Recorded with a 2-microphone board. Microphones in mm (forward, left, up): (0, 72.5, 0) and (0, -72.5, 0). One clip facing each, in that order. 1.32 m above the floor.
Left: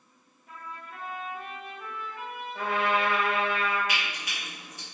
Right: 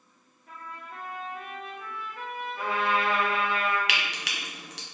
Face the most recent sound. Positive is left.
turn(degrees=-80)